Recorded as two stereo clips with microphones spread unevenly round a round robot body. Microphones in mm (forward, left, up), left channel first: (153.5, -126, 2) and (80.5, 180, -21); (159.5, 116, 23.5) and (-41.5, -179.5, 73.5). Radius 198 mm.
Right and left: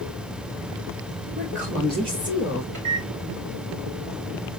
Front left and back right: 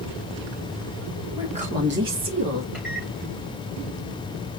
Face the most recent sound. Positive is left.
turn(degrees=150)